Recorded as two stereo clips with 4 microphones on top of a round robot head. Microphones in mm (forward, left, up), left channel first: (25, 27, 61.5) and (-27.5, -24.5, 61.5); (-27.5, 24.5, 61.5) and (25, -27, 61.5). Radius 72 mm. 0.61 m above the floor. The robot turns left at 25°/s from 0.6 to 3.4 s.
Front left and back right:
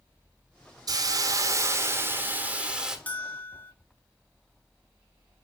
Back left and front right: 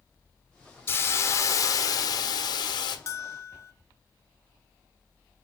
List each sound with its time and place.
0.9 s a hiss: 165° right, 1.5 m; by 3.0 s 140° left, 1.5 m
3.1 s a bell: 105° left, 1.1 m; by 3.7 s 95° left, 1.1 m